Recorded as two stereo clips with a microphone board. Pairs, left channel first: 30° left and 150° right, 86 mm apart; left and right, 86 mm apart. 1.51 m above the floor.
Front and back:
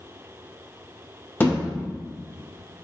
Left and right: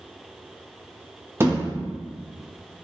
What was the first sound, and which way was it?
A thud, 30° right.